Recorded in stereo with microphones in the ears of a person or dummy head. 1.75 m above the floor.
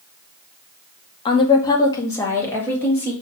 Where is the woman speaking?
30° left (ahead or behind), 0.7 m; by 3.1 s 15° left (ahead or behind), 3 m.